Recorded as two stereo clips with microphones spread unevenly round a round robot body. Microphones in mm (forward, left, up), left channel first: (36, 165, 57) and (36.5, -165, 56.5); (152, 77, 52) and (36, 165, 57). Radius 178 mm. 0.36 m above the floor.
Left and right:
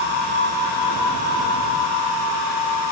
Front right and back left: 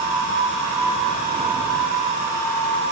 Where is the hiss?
No hiss in this recording.